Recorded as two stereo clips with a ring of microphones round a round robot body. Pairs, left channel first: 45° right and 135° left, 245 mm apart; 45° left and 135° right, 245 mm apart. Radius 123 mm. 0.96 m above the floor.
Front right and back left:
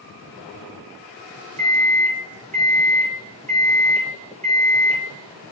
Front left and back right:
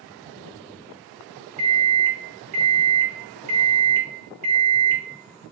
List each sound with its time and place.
1.6 s a microwave: 160° right, 0.7 m